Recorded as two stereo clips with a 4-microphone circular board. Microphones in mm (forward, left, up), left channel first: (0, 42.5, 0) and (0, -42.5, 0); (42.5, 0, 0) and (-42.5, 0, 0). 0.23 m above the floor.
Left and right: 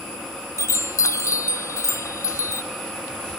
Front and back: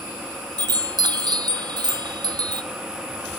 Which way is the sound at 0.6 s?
145° left.